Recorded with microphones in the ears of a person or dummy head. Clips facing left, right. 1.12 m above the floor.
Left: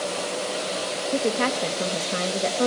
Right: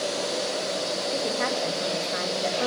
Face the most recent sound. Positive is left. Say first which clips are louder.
# left 6 dB
turn(degrees=45)  # may be behind; listen again after turning